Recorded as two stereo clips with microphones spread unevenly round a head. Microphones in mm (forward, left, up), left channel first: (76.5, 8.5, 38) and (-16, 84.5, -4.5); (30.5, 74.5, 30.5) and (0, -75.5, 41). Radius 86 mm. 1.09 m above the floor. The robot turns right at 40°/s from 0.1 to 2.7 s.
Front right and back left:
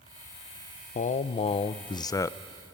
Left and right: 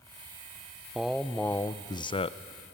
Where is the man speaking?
15° right, 0.6 m; by 2.4 s 45° left, 0.6 m.